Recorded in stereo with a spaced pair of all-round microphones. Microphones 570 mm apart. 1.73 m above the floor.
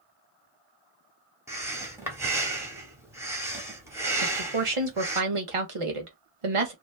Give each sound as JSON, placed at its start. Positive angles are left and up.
{"t": 1.5, "sound": "breathing", "side_deg": -5, "distance_m": 0.8}
{"t": 4.2, "sound": "a woman speaking", "side_deg": -60, "distance_m": 1.1}